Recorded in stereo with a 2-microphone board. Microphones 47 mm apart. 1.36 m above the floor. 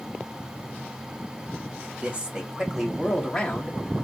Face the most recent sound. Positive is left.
turn(degrees=30)  # may be behind; listen again after turning